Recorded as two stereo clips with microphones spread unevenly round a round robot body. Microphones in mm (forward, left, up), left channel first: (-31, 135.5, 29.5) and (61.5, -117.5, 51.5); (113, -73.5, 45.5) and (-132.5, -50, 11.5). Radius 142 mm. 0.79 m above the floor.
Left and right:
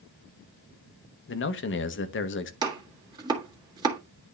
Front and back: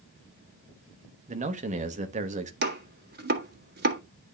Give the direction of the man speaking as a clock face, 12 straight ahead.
8 o'clock.